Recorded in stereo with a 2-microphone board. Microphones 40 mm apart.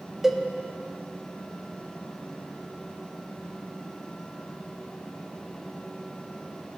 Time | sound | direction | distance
0.2 | a cowbell | 5° right (ahead or behind) | 0.7 m